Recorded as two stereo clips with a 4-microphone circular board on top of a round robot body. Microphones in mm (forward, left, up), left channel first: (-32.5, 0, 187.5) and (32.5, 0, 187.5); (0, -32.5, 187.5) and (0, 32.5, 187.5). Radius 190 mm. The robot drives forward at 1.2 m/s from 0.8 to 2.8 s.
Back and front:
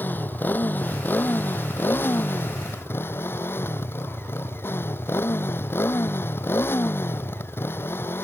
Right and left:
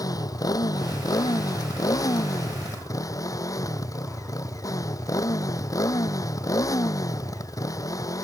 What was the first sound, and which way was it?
A motorcycle, 115° right.